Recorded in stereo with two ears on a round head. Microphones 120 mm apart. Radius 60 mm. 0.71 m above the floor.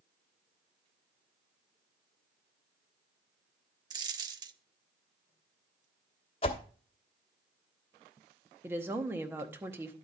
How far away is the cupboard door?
I don't hear a cupboard door.